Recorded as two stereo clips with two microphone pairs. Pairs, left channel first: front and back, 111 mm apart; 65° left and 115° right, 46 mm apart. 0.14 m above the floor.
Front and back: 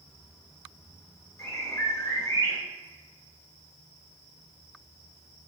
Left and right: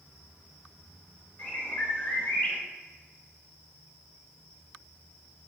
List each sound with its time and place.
1.4 s a bird: 35° left, 0.9 m